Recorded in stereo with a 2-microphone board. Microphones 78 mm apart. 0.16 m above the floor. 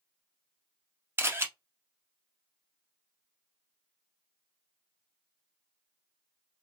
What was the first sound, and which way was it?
A camera shutter, 30° right (ahead or behind).